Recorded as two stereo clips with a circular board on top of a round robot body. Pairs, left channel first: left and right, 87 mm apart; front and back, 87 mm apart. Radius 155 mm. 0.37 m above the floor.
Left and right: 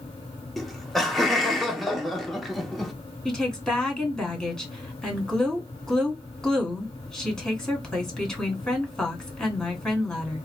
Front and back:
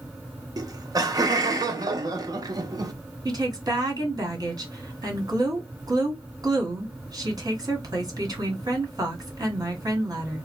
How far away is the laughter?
About 1.0 m.